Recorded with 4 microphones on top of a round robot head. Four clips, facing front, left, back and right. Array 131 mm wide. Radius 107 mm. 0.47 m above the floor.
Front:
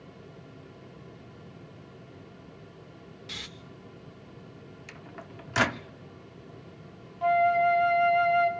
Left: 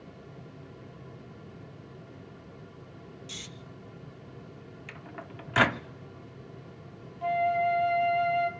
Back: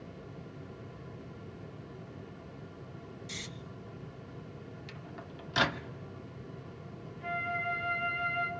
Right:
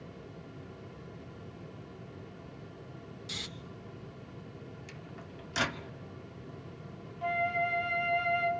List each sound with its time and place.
3.3 s snoring: 25° right, 1.1 m
4.9 s a microwave: 65° left, 0.7 m
7.2 s a flute: 10° left, 1.9 m